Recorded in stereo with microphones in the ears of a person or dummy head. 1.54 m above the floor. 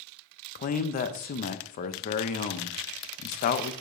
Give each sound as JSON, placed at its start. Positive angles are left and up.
{"t": 0.6, "sound": "a man speaking", "side_deg": 45, "distance_m": 0.7}